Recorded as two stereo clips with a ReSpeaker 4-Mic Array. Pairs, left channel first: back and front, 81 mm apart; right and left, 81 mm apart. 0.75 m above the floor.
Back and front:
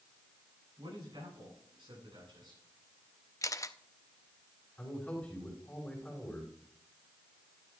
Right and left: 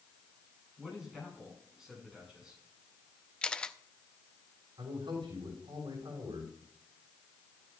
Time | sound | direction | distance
0.8 | a man speaking | 5° left | 7.5 m
3.4 | a camera shutter | 160° right | 0.5 m
4.8 | a man speaking | 105° left | 6 m